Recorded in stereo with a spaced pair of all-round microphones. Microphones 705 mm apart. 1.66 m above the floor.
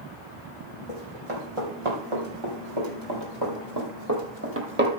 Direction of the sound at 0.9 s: 50° right (ahead or behind).